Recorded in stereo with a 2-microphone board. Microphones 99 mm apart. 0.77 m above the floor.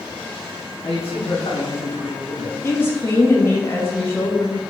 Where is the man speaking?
70° left (ahead or behind), 3 m; by 2.5 s 50° left (ahead or behind), 1.3 m.